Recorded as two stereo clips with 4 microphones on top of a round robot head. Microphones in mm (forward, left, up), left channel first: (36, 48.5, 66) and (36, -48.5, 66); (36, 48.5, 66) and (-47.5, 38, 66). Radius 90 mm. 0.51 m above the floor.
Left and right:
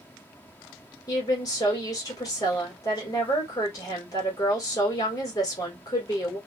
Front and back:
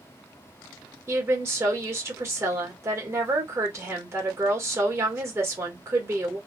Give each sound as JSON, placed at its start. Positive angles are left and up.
{"t": 1.1, "sound": "a woman speaking", "azimuth_deg": 135, "distance_m": 1.5}